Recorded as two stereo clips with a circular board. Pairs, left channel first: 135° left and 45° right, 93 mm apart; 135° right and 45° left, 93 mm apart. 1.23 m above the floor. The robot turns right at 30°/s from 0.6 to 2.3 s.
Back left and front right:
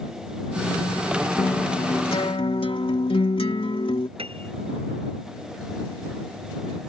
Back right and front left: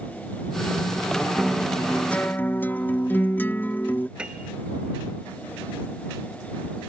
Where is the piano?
35° right.